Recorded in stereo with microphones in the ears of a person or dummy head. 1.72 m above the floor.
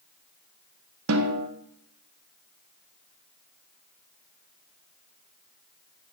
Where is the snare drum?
80° right, 2 m.